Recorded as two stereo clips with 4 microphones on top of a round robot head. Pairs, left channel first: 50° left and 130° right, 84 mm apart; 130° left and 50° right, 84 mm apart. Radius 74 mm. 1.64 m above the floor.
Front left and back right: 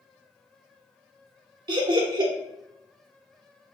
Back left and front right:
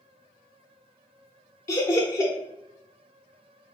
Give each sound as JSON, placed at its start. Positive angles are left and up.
{"t": 1.7, "sound": "laughter", "azimuth_deg": -175, "distance_m": 0.6}